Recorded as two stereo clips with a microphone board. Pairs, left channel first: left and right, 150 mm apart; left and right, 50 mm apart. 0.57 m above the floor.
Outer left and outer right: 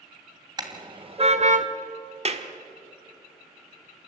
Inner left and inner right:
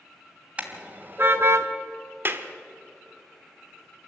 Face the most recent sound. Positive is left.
turn(degrees=-45)  # may be behind; listen again after turning